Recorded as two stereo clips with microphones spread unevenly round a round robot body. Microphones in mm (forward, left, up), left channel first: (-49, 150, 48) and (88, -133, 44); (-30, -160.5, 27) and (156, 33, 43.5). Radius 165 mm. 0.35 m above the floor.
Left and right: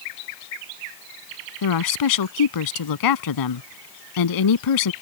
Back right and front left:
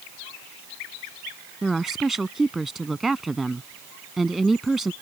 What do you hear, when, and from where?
1.6 s a woman speaking: 135° left